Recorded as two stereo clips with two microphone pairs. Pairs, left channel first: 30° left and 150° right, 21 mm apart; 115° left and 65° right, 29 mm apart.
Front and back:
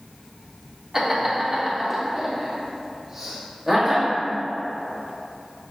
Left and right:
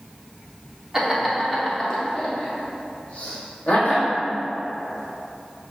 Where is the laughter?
105° right, 0.8 m; by 4.1 s 140° left, 1.7 m.